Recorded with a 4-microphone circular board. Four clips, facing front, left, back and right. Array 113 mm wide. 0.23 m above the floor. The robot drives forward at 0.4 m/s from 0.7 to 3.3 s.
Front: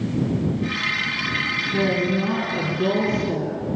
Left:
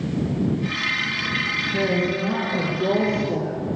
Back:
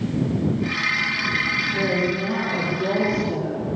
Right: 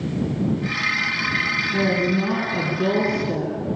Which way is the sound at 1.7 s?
60° right.